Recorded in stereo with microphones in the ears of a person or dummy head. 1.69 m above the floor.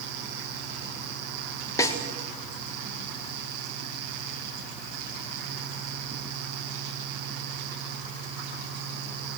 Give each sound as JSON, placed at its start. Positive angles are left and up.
{"t": 1.8, "sound": "a snare drum", "side_deg": 15, "distance_m": 2.0}